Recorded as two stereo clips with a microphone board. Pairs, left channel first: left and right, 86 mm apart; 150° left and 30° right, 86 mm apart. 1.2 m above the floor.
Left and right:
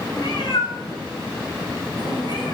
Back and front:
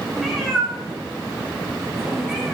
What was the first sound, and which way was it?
A cat meowing, 55° left.